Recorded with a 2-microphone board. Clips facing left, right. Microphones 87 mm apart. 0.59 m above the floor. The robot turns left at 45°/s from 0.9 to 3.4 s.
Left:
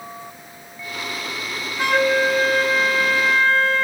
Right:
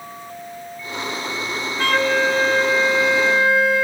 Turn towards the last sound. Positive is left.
turn(degrees=-15)  # may be behind; listen again after turning